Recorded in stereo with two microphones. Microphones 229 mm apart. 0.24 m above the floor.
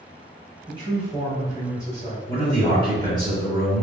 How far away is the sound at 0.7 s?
About 1.5 m.